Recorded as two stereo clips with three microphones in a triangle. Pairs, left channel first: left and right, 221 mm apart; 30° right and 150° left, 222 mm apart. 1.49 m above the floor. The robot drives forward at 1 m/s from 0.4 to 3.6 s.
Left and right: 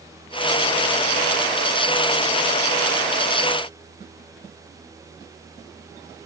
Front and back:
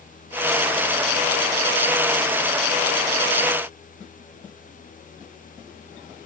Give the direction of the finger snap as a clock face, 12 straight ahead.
No finger snap in this recording.